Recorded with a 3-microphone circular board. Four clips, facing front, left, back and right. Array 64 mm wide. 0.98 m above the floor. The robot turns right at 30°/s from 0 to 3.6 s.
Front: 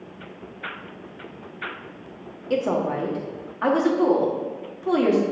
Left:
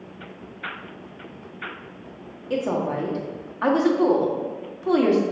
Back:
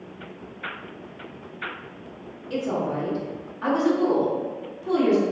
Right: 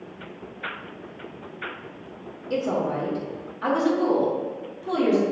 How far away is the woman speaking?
About 1.5 m.